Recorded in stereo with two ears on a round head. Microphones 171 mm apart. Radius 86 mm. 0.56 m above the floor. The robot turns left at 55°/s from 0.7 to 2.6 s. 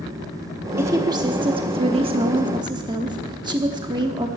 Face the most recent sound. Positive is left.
turn(degrees=-25)  # may be behind; listen again after turning